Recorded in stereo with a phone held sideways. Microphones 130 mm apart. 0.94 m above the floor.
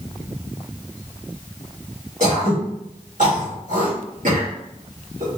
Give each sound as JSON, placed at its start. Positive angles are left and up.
{"t": 2.2, "sound": "throat clearing", "side_deg": -75, "distance_m": 2.0}